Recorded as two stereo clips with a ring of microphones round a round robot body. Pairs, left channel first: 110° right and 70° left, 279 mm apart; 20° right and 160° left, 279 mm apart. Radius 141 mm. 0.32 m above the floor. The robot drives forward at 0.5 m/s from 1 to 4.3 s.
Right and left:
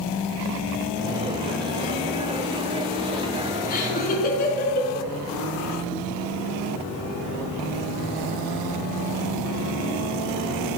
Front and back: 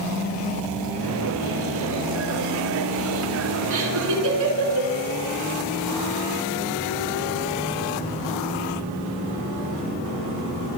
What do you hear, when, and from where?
3.7 s laughter: 175° right, 4 m